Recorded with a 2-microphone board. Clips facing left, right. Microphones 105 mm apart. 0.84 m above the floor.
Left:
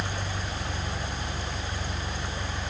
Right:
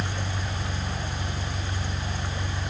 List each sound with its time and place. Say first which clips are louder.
0.0 s an engine running: right 1 dB; 55° right (ahead or behind), 1.0 m